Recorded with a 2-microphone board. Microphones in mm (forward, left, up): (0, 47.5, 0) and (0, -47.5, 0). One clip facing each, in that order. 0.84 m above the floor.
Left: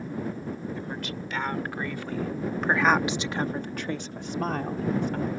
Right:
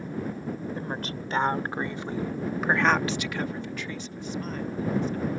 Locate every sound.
0.8 s a woman speaking: 40° right (ahead or behind); by 5.3 s 80° left